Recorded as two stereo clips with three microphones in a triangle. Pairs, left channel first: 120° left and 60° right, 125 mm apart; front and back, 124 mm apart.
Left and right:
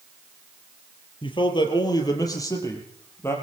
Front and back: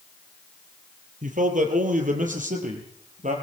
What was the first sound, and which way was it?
A man speaking, 170° left.